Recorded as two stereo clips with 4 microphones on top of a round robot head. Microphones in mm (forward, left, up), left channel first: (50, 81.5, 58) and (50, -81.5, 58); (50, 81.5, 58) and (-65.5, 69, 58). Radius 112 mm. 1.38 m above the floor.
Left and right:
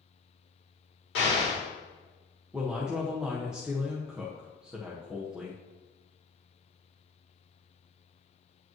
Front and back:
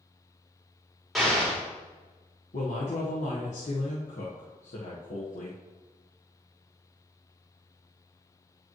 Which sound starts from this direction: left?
An explosion, at 1.1 s.